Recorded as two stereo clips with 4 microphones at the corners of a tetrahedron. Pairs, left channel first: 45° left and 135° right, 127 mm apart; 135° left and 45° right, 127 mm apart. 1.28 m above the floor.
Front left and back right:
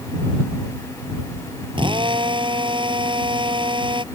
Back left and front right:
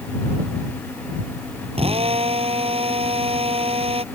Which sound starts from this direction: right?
A drill, at 1.8 s.